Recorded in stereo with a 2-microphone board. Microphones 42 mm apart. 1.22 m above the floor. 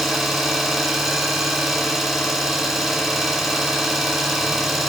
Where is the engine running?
Centre (ahead or behind), 2 m.